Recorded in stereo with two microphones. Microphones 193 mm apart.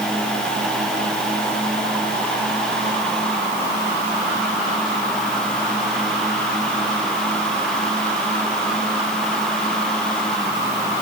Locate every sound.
Only background noise.